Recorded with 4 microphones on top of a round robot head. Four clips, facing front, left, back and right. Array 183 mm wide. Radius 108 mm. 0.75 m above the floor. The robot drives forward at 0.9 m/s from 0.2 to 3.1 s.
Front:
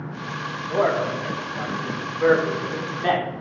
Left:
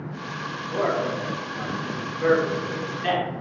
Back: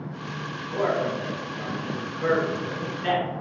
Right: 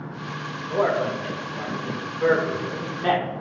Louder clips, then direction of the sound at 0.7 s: Right 2 dB, front 3 dB; 20° right.